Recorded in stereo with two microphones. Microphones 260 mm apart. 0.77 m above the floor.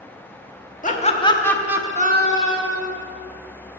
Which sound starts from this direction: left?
Laughter, at 0.8 s.